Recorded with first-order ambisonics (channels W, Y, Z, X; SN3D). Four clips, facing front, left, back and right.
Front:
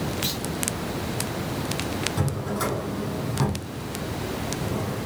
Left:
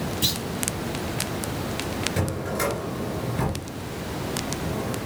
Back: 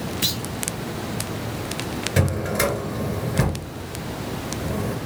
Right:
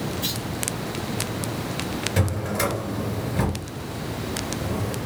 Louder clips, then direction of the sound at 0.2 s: Left 7 dB, back 4 dB; 140° left.